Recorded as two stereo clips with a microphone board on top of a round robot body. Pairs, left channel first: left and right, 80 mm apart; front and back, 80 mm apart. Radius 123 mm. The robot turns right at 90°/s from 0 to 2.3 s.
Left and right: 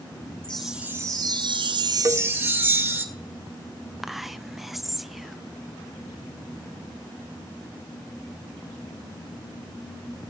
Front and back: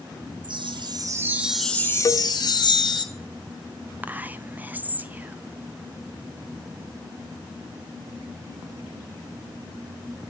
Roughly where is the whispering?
Behind.